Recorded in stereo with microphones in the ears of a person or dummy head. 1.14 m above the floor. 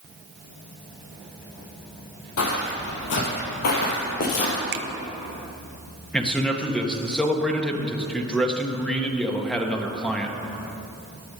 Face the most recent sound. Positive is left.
turn(degrees=0)  # may be behind; listen again after turning